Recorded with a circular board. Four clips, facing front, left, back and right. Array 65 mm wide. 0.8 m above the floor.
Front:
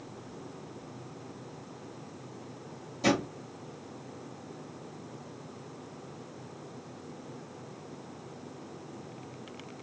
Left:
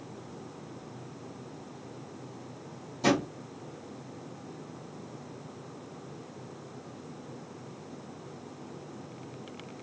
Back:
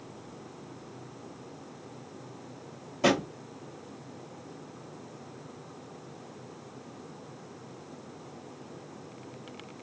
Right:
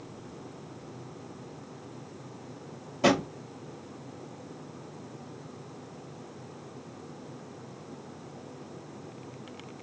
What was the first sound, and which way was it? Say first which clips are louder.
A drawer: right 2 dB, back 2 dB; 135° right.